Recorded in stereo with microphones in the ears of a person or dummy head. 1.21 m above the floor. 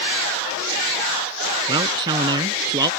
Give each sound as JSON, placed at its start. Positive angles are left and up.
{"t": 1.7, "sound": "a man speaking", "side_deg": -30}